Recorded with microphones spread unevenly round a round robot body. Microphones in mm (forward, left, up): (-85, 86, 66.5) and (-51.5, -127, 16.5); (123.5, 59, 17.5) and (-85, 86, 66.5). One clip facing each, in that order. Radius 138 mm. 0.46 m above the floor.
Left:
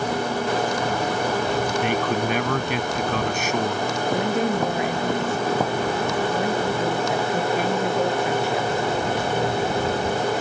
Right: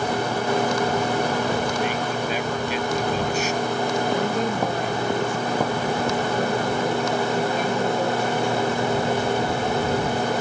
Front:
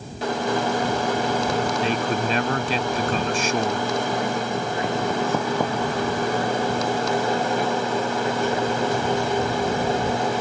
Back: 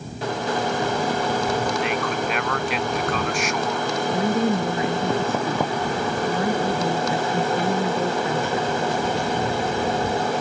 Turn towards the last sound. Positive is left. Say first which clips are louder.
# left 1 dB, back 4 dB
turn(degrees=180)